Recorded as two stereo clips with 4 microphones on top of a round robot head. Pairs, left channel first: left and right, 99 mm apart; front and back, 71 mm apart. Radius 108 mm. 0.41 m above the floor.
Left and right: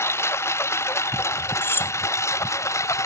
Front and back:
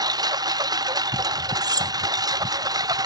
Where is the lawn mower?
155° left; by 3.1 s 150° left.